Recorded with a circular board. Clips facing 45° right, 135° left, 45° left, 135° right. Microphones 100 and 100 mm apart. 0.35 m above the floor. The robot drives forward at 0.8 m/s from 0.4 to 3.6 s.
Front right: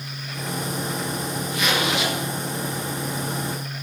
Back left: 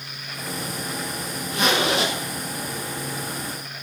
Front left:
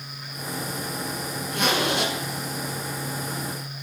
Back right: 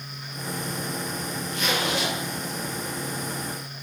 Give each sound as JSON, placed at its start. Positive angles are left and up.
{"t": 1.5, "sound": "a zipper", "azimuth_deg": 75, "distance_m": 6.5}